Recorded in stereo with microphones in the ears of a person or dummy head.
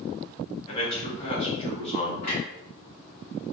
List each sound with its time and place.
0.7 s a man speaking: 35° left (ahead or behind), 1.2 m
2.2 s a clunk: 50° left (ahead or behind), 1.5 m